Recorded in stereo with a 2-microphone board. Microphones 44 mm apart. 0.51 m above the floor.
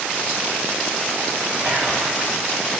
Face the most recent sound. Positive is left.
turn(degrees=-45)  # may be behind; listen again after turning